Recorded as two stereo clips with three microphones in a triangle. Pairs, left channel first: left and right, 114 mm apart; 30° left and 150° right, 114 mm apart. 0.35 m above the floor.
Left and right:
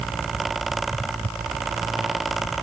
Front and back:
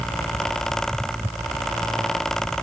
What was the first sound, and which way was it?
Only background noise.